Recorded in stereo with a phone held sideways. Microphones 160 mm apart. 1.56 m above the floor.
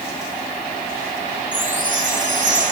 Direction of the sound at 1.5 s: 55° right (ahead or behind).